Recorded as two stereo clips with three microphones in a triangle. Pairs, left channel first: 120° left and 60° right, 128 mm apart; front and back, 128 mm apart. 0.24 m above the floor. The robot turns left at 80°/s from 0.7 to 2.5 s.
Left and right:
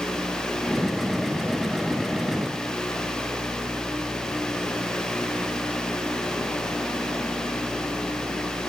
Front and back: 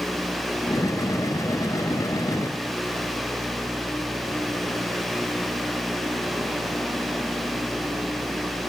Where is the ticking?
No ticking in this recording.